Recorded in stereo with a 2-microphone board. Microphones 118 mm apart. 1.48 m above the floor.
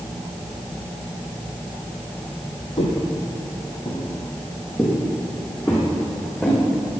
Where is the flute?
I don't hear a flute.